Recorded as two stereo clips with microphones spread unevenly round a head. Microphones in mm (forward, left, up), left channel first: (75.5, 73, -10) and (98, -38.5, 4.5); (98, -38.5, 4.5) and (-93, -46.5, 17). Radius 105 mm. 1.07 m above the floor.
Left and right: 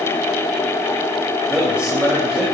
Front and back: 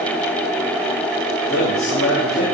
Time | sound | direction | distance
1.5 | a man speaking | 5° left | 5.5 m